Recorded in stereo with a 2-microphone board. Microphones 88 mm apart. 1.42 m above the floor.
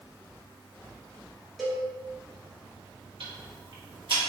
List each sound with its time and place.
1.6 s a cowbell: 5° right (ahead or behind), 1.6 m
3.2 s ticking: 75° right (ahead or behind), 1.5 m